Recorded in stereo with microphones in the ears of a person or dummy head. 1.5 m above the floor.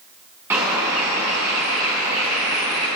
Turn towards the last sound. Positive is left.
turn(degrees=-10)  # may be behind; listen again after turning